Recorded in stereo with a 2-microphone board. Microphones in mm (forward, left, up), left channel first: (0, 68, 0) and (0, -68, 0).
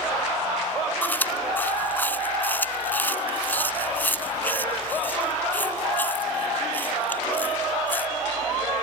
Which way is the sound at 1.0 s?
15° left (ahead or behind).